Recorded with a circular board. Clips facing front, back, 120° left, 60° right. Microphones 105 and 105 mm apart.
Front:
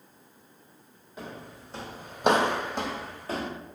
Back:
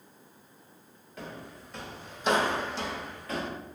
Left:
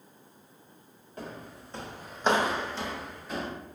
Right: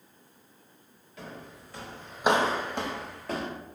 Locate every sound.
1.2 s footsteps: 75° left, 1.4 m; by 3.5 s 60° right, 1.3 m